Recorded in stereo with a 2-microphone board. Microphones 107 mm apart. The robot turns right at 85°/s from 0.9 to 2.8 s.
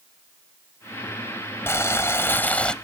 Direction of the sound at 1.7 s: 25° left (ahead or behind).